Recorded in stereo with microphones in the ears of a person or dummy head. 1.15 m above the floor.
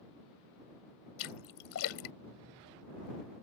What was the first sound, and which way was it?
A splash, 70° left (ahead or behind).